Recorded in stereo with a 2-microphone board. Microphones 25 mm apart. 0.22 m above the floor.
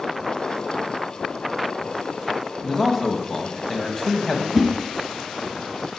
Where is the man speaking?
20° left (ahead or behind), 1.0 m.